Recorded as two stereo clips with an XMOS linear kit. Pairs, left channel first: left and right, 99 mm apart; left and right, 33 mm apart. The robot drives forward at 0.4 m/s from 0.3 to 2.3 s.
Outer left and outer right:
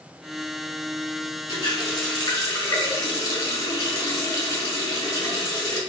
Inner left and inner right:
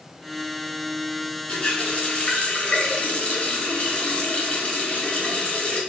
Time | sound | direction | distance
1.5 | a running tap | 45° left (ahead or behind) | 1.0 m